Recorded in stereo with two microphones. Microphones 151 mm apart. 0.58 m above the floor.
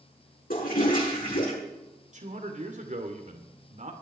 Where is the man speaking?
55° right (ahead or behind), 2 m.